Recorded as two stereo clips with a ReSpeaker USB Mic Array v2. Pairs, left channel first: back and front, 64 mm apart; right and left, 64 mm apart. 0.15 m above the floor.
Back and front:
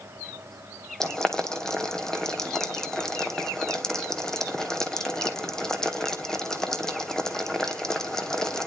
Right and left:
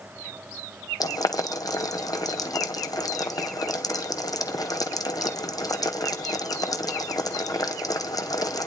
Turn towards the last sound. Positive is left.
turn(degrees=-100)